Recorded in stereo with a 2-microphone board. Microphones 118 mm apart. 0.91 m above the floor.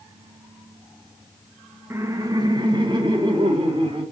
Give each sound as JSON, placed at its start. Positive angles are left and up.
{"t": 1.9, "sound": "laughter", "side_deg": -20, "distance_m": 0.5}